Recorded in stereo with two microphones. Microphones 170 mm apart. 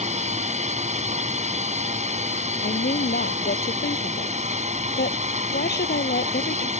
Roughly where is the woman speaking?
Left.